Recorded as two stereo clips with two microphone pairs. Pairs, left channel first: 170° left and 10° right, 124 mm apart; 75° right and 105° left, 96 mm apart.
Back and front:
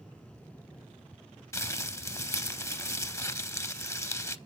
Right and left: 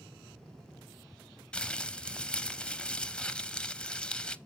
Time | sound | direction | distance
1.5 | crumpling | 145° right | 0.6 m